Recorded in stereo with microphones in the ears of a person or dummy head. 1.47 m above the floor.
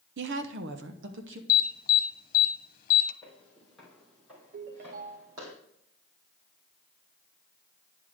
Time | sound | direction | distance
0.2 | a woman speaking | 75° right (ahead or behind) | 0.7 m
1.5 | an alarm | 45° left (ahead or behind) | 1.1 m
3.2 | footsteps | 5° left (ahead or behind) | 2 m
4.5 | a ringtone | 50° right (ahead or behind) | 0.9 m